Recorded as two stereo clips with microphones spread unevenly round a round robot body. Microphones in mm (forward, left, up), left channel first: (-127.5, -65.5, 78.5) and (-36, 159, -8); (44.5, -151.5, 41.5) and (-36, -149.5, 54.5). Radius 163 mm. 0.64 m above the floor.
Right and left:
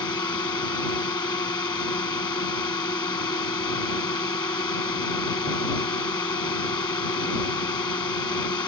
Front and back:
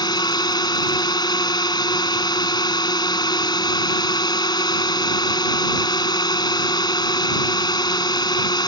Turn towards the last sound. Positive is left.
turn(degrees=-35)